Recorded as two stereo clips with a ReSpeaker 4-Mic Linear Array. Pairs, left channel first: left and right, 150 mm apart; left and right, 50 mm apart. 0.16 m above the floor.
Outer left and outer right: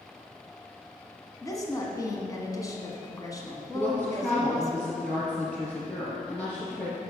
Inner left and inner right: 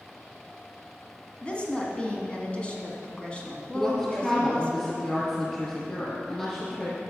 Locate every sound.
1.4 s a woman speaking: 25° left (ahead or behind), 1.3 m
3.7 s a woman speaking: 10° left (ahead or behind), 3 m